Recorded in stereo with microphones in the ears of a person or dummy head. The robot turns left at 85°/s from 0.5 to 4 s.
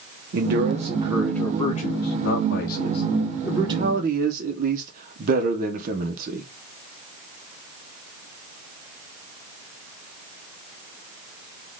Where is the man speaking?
115° right, 0.9 m; by 6.5 s 50° right, 0.9 m.